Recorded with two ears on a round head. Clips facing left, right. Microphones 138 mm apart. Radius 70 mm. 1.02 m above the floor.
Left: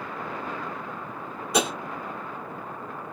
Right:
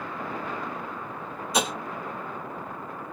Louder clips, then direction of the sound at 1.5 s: Left 2 dB; 50° left (ahead or behind).